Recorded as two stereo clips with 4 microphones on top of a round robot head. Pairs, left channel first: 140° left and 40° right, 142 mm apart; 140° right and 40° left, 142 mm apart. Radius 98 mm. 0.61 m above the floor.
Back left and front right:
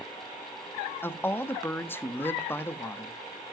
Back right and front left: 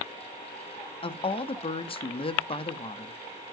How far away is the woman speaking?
About 0.9 m.